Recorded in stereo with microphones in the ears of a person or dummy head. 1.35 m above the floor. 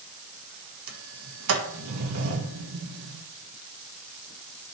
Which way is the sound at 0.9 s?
85° right.